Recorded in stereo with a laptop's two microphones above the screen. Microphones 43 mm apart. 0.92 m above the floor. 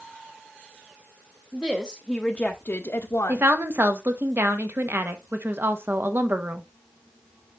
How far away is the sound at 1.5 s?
About 1.0 m.